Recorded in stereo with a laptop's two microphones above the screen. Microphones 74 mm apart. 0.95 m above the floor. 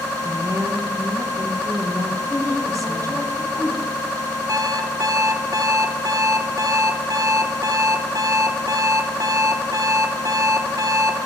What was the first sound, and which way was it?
A woman speaking, 45° right (ahead or behind).